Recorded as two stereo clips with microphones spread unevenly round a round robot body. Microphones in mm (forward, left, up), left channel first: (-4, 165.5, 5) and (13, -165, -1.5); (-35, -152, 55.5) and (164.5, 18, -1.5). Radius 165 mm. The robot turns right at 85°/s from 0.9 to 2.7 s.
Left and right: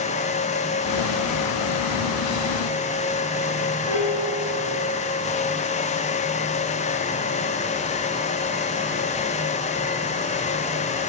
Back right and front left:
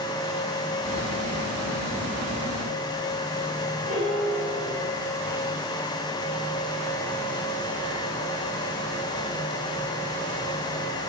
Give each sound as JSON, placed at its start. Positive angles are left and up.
{"t": 3.9, "sound": "a piano", "azimuth_deg": 105, "distance_m": 7.0}